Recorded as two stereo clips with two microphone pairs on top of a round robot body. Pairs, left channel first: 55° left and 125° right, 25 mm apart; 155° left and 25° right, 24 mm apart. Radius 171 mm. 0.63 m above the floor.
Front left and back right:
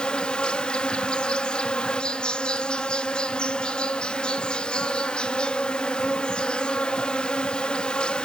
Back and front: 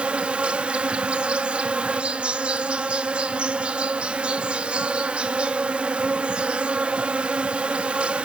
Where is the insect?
15° left, 1.2 m.